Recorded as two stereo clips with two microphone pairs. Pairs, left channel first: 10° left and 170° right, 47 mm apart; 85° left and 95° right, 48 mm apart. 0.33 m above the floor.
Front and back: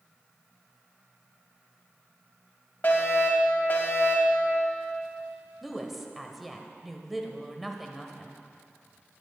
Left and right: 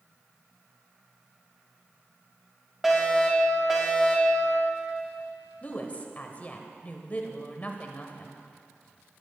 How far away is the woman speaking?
About 1.2 m.